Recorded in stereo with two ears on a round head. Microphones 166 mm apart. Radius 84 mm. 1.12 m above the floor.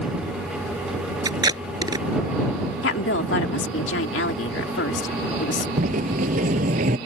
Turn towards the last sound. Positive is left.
turn(degrees=-40)  # may be behind; listen again after turning